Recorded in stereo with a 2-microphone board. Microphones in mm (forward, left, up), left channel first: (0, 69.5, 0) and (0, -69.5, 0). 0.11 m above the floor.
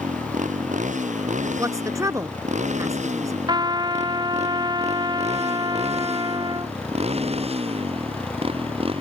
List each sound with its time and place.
0.0 s a motorcycle: 65° right (ahead or behind); by 9.0 s 40° right (ahead or behind)
1.6 s a woman speaking: 25° right (ahead or behind)
3.5 s a trumpet: 30° right (ahead or behind)